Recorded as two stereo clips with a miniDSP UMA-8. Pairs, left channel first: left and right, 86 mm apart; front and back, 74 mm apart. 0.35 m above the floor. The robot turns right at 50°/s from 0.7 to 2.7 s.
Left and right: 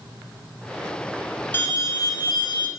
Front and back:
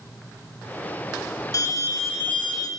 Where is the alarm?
30° left, 2.5 m; by 2.7 s 85° left, 2.5 m.